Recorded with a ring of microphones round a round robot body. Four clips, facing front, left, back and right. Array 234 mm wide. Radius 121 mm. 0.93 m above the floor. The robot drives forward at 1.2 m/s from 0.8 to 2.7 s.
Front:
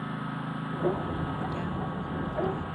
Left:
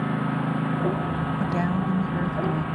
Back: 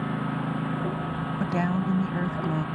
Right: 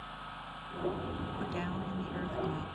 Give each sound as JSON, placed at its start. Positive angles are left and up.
{"t": 0.0, "sound": "a lawn mower", "azimuth_deg": 110}
{"t": 1.4, "sound": "a woman speaking", "azimuth_deg": 135}